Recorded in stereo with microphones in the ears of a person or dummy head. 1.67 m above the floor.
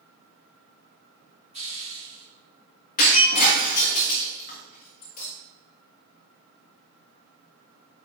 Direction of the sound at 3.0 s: 40° left (ahead or behind).